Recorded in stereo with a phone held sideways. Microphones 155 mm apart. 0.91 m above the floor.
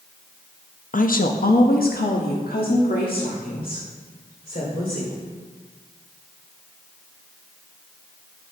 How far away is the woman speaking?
About 0.6 m.